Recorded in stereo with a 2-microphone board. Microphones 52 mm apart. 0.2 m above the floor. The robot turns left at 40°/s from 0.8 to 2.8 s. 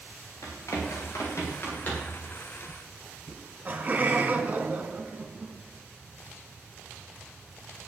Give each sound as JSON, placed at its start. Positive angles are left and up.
{"t": 0.4, "sound": "running footsteps", "side_deg": 85, "distance_m": 8.0}
{"t": 3.3, "sound": "laughter", "side_deg": -35, "distance_m": 2.0}